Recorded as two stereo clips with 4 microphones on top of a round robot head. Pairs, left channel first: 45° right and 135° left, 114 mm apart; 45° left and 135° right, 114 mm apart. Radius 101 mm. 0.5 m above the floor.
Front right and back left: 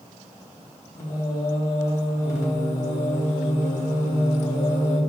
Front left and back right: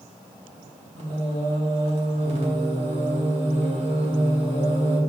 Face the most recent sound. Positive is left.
turn(degrees=-105)